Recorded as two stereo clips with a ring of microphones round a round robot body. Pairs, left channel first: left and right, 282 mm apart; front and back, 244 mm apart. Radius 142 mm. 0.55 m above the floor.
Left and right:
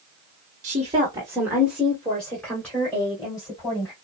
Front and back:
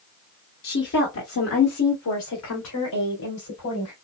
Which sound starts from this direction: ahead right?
A woman speaking, at 0.6 s.